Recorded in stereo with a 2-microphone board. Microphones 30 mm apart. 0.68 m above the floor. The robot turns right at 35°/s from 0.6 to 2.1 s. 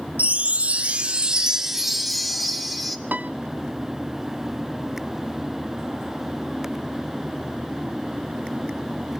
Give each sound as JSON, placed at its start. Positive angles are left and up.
{"t": 0.2, "sound": "a chime", "azimuth_deg": -50, "distance_m": 0.9}
{"t": 3.1, "sound": "a piano", "side_deg": -75, "distance_m": 0.5}